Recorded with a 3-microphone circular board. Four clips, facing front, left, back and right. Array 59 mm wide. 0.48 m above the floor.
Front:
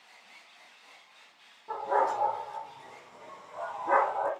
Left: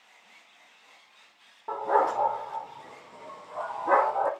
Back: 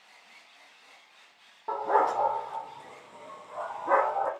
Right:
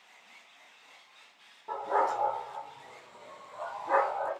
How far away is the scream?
No scream in this recording.